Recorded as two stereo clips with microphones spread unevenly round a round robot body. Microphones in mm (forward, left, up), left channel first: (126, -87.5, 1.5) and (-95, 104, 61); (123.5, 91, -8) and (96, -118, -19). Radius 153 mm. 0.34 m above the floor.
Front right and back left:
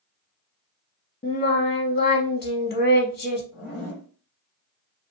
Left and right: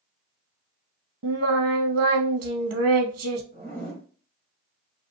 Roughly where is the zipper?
Right.